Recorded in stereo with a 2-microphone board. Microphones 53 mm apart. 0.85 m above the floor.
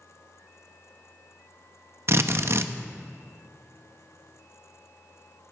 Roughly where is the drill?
Right.